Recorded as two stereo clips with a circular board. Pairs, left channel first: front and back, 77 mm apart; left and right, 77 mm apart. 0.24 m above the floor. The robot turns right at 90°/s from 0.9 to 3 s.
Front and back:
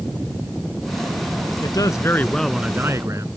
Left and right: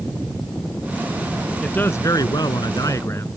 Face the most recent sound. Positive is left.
turn(degrees=135)